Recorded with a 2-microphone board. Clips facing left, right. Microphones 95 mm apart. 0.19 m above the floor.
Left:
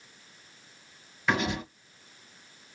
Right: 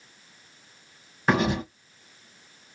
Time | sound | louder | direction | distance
1.3 | writing | right 5 dB | 45° right (ahead or behind) | 1.7 m